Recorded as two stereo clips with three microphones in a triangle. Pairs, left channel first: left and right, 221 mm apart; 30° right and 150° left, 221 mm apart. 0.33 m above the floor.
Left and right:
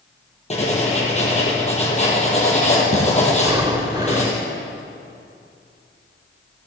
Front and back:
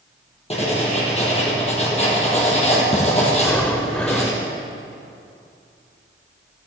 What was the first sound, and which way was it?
Writing, 30° left.